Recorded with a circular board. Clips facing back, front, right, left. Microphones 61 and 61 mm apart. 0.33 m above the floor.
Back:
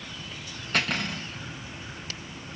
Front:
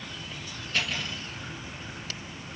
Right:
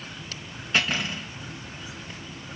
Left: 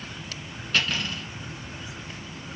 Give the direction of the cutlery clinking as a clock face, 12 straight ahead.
5 o'clock.